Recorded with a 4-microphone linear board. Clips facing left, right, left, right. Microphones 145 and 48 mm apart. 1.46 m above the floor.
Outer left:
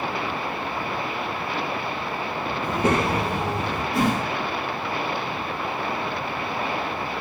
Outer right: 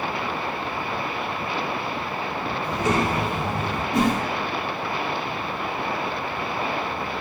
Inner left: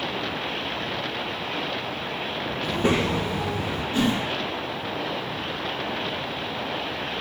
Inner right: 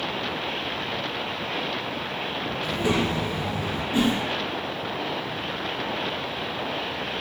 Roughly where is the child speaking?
Left.